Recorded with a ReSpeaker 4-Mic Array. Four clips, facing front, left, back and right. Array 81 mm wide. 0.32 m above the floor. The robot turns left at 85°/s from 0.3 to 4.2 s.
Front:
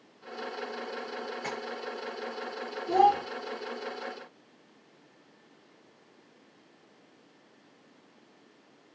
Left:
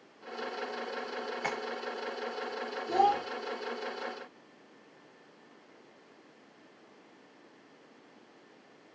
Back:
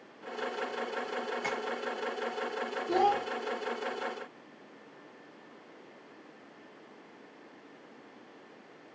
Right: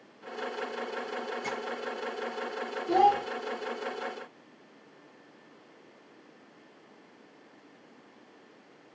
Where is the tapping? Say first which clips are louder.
Left 4 dB, back 1 dB; 105° left, 0.7 m; by 1.6 s 95° left, 0.7 m.